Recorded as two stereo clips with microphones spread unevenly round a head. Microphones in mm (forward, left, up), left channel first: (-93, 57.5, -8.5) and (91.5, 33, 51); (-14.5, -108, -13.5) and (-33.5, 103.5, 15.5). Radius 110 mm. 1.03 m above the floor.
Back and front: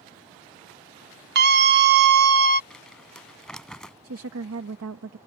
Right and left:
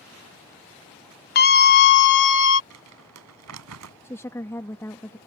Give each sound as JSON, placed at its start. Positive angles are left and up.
{"t": 1.4, "sound": "a scream", "azimuth_deg": -55}
{"t": 2.7, "sound": "crumpling", "azimuth_deg": 85}
{"t": 4.0, "sound": "a woman speaking", "azimuth_deg": -5}